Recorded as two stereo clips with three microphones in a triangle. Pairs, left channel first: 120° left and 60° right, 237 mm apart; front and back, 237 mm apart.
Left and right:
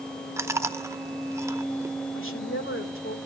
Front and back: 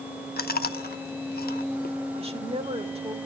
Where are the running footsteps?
I don't hear running footsteps.